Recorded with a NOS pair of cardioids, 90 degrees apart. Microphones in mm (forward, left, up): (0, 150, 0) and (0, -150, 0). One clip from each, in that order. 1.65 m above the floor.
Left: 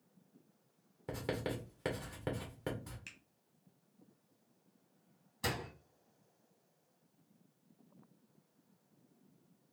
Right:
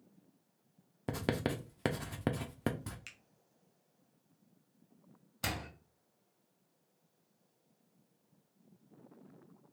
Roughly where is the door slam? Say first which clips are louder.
Even; ahead right.